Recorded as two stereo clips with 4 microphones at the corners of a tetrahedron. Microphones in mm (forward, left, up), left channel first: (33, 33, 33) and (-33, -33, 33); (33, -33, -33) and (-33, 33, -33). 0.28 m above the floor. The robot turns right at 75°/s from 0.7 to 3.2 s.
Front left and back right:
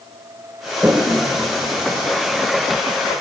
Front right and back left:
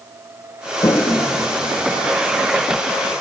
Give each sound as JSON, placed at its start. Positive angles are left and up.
{"t": 0.8, "sound": "a toilet flushing", "azimuth_deg": -65, "distance_m": 0.6}